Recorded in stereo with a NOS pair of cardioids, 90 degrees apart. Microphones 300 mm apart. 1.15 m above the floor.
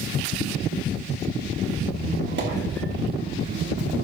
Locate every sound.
1.9 s a squeak: 35° right, 1.8 m